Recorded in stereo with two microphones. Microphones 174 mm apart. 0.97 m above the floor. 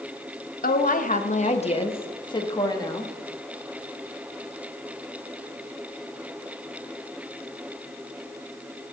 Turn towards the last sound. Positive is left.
turn(degrees=20)  # may be behind; listen again after turning